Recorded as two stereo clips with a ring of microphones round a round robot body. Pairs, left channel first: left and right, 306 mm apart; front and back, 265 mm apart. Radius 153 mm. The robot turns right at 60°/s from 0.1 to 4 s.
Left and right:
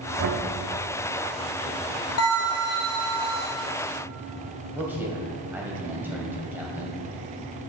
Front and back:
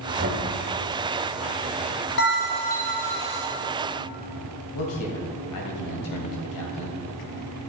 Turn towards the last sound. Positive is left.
turn(degrees=-5)